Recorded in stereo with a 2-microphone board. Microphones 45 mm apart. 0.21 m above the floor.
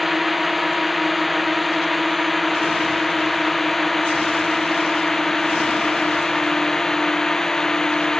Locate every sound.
0.0 s a drone: 5° right (ahead or behind); by 8.2 s 10° left (ahead or behind)